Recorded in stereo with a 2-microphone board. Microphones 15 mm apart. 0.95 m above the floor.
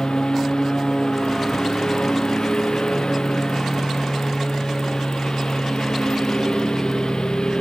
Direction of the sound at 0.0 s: 55° left (ahead or behind).